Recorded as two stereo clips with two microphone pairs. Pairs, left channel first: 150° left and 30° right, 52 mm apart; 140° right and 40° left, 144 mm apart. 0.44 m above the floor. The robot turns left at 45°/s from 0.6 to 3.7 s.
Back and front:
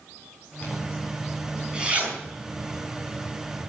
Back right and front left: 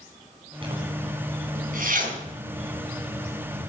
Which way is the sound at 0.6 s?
95° left.